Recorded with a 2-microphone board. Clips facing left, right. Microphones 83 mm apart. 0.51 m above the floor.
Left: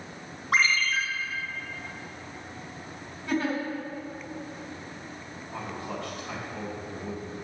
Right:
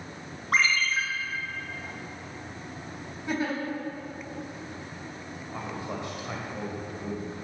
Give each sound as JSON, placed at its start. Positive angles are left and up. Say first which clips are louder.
{"t": 0.5, "sound": "a ringtone", "louder": "even", "side_deg": 0, "distance_m": 2.5}
{"t": 3.3, "sound": "a giggle", "louder": "left 2 dB", "side_deg": -20, "distance_m": 3.5}
{"t": 5.5, "sound": "a man speaking", "louder": "even", "side_deg": -20, "distance_m": 2.0}